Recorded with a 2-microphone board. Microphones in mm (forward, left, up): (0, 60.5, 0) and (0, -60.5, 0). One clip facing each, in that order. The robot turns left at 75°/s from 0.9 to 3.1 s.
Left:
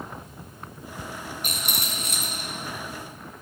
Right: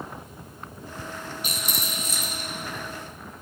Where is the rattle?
125° left, 1.0 m; by 2.5 s 50° left, 1.0 m.